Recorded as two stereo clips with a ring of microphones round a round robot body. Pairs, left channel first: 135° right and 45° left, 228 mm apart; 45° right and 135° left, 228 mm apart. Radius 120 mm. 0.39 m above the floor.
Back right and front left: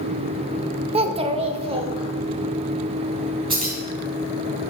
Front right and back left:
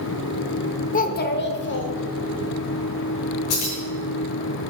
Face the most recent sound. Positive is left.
turn(degrees=-25)